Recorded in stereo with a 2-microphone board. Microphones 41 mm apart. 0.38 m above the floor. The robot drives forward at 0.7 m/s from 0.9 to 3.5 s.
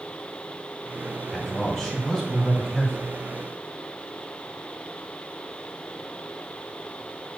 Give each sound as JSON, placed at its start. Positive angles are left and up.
{"t": 1.3, "sound": "a man speaking", "side_deg": 10, "distance_m": 2.5}